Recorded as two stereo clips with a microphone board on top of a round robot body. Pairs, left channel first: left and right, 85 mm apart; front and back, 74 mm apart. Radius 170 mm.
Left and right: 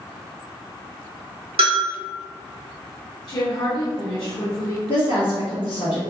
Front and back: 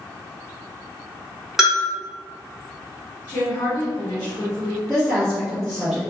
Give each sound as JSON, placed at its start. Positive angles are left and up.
{"t": 1.6, "sound": "a bell", "azimuth_deg": -90, "distance_m": 0.9}
{"t": 3.3, "sound": "a woman speaking", "azimuth_deg": 55, "distance_m": 1.5}
{"t": 4.9, "sound": "a woman speaking", "azimuth_deg": 100, "distance_m": 1.9}